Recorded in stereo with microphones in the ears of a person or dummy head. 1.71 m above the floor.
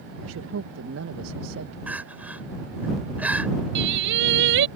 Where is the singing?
65° right (ahead or behind).